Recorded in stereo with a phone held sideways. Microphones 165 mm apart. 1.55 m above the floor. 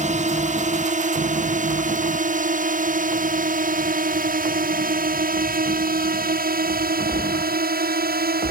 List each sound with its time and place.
0.0 s a drone: 45° right (ahead or behind); by 8.5 s 70° right (ahead or behind)